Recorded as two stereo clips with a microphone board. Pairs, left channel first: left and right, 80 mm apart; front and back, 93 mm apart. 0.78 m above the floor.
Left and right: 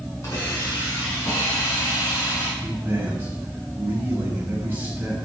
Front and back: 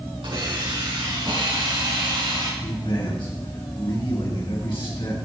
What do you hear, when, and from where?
0.2 s a hiss: 145° left, 8 m
2.6 s a man speaking: 25° right, 5.5 m